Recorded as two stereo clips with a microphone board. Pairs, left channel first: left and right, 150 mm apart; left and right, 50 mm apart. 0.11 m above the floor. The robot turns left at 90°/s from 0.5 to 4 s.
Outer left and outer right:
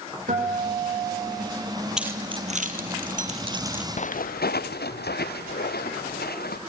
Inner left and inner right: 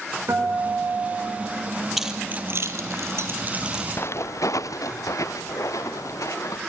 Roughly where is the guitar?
Ahead right.